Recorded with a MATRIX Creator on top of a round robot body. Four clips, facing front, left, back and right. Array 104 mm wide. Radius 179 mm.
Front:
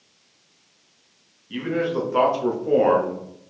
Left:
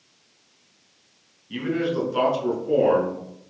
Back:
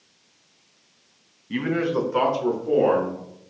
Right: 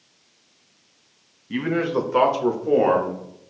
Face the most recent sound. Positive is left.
turn(degrees=-45)